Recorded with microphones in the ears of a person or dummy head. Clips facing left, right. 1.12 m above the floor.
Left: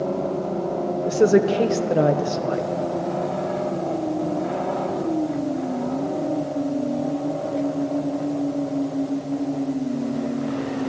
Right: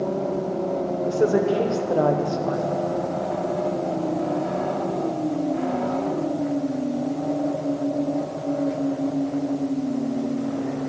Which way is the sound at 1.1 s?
20° left (ahead or behind).